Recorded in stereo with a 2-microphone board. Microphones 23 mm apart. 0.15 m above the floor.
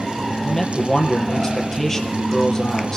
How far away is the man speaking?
About 3.5 m.